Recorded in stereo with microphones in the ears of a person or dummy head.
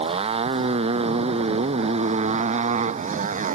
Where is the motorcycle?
30° right (ahead or behind); by 3.6 s 40° right (ahead or behind).